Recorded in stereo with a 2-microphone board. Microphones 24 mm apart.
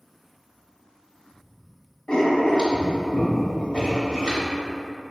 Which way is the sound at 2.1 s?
45° left (ahead or behind).